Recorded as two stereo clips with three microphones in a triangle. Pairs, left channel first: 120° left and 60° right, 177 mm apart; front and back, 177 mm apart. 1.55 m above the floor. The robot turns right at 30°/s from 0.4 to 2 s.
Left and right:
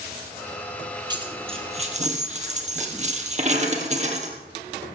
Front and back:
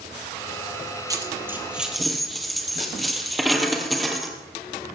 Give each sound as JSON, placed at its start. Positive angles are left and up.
{"t": 1.1, "sound": "a dropped coin", "azimuth_deg": -115, "distance_m": 2.0}